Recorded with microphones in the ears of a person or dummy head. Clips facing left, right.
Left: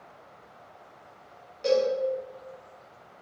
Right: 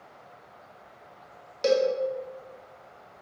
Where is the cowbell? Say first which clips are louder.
Right 1 dB; 70° right (ahead or behind), 1.3 m.